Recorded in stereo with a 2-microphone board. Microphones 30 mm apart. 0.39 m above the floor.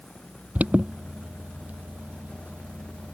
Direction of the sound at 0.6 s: 55° right (ahead or behind).